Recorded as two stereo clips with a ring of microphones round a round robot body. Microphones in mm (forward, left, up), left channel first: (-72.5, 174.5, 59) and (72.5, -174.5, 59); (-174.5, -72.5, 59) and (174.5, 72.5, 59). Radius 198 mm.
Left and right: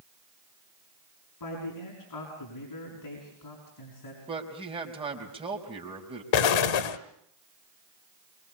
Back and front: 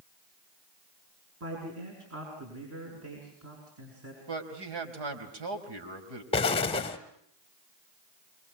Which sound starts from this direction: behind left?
An explosion, at 6.3 s.